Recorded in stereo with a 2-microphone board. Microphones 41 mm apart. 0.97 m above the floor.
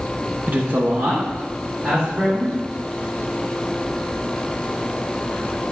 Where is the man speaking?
40° right (ahead or behind), 0.7 m; by 2.5 s 45° right (ahead or behind), 2.5 m.